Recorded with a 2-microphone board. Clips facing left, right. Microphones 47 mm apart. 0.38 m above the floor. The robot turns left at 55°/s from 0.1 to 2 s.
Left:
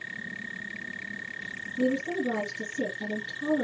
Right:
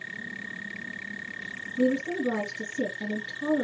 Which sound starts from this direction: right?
A woman speaking, at 1.8 s.